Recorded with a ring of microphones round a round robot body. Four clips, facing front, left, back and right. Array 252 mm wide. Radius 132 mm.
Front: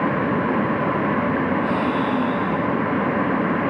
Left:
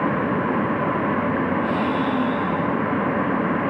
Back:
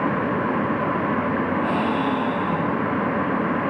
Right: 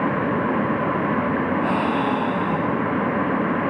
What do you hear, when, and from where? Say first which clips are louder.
1.6 s a gasp: right 1 dB, front 1 dB; 115° right, 5.5 m